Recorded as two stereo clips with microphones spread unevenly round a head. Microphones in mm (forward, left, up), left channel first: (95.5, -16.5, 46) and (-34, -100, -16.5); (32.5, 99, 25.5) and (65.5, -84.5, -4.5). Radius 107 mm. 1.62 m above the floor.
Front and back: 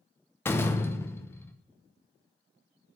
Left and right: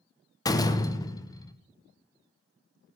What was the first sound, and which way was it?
A door slam, 55° left.